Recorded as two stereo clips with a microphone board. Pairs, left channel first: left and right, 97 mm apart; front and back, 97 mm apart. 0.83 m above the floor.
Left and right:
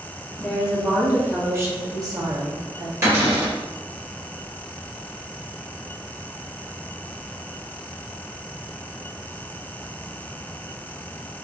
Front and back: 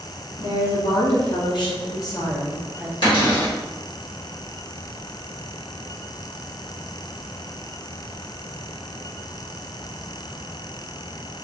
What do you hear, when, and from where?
0.4 s a woman speaking: straight ahead, 1.4 m; by 2.9 s 80° right, 1.0 m
3.0 s a cupboard door: 30° right, 1.7 m